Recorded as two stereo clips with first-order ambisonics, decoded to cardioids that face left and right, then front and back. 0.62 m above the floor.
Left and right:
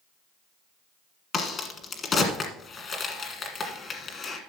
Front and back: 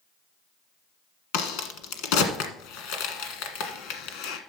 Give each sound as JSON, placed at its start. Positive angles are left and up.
{"t": 1.3, "sound": "a crack", "azimuth_deg": 20, "distance_m": 1.4}